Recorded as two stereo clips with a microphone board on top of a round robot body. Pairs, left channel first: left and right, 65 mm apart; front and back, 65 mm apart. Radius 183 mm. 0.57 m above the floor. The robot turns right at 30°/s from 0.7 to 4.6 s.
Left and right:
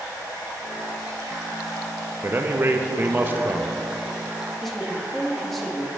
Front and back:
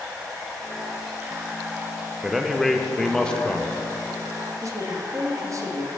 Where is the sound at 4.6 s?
175° left, 1.1 m.